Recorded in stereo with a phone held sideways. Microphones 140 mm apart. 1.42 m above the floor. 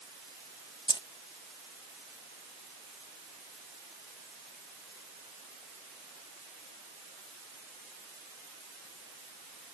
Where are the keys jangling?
35° left (ahead or behind).